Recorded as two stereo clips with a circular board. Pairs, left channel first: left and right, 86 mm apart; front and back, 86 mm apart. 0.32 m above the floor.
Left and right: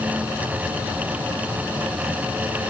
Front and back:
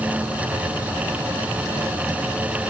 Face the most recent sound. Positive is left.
No sound to turn to.